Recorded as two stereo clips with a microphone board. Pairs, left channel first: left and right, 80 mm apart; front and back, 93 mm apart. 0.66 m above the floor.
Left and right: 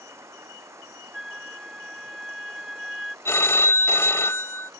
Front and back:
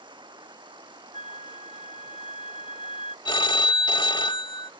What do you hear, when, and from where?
0.0 s running water: 150° right
1.1 s a flute: 5° right
3.2 s a phone ringing: 30° left